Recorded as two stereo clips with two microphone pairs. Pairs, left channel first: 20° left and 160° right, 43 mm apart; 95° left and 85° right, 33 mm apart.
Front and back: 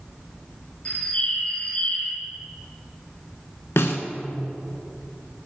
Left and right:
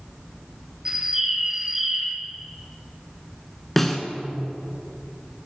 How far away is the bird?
About 0.6 m.